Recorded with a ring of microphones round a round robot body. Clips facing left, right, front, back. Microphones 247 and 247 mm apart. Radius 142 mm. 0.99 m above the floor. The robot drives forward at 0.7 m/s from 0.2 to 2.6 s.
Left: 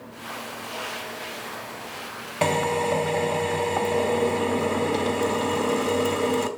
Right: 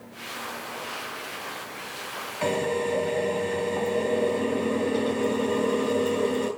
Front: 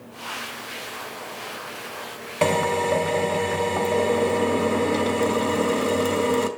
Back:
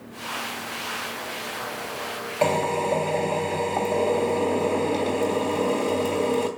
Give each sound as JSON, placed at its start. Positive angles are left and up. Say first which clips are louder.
{"t": 2.4, "sound": "a drill", "louder": "left 1 dB, front 2 dB", "azimuth_deg": 70, "distance_m": 2.5}